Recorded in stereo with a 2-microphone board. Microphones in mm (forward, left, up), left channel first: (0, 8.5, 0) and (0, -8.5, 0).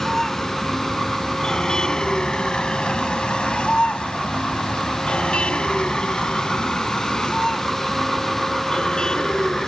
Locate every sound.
0.0 s a vehicle: 25° left (ahead or behind); by 9.7 s 45° left (ahead or behind)